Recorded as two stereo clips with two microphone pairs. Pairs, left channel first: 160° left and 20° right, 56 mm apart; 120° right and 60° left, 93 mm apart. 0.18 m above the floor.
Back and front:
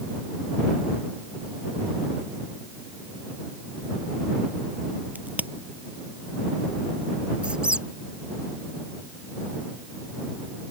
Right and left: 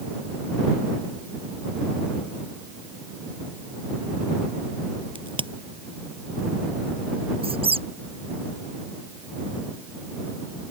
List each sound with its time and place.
5.2 s a crack: 40° left
7.4 s a squeak: 50° left